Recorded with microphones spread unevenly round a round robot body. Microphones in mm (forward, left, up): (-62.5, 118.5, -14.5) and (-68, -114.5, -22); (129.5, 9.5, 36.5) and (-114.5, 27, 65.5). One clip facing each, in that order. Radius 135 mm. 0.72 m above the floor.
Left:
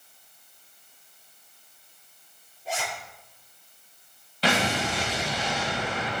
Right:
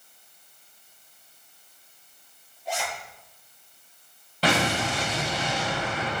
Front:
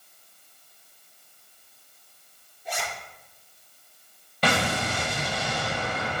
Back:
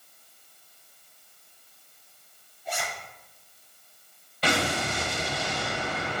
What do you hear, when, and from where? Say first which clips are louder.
2.6 s a zipper: right 1 dB, even; 15° left, 4.5 m
4.4 s an explosion: right 1 dB, front 1 dB; 40° right, 2 m